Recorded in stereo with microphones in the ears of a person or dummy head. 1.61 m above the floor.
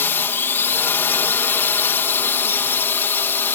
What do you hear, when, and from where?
0.0 s a drone: 10° left (ahead or behind)